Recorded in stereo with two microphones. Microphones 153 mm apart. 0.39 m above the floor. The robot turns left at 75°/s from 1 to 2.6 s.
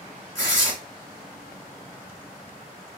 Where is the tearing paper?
25° left (ahead or behind), 2.5 m.